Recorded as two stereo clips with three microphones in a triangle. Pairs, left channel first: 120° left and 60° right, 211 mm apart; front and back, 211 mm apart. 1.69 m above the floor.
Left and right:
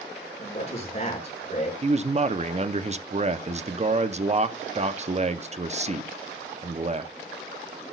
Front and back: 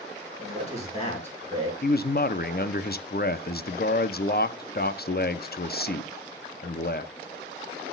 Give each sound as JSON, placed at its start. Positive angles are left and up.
{"t": 0.4, "sound": "a man speaking", "azimuth_deg": 60, "distance_m": 5.0}
{"t": 1.8, "sound": "a man speaking", "azimuth_deg": -15, "distance_m": 0.7}